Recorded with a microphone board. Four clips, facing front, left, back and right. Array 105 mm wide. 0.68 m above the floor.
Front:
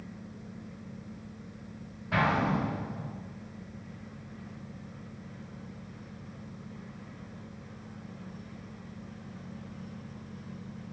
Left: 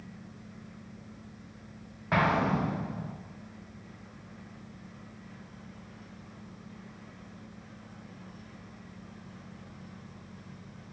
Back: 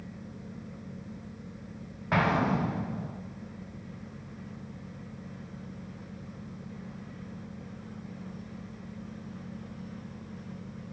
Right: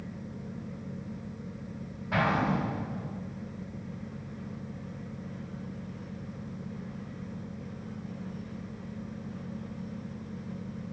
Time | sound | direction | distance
2.1 | an explosion | 140° left | 0.7 m